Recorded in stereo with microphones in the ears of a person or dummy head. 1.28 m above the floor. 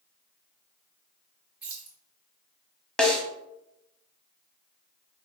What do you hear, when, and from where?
1.6 s keys jangling: 10° right (ahead or behind), 0.9 m
3.0 s a snare drum: 5° left (ahead or behind), 0.7 m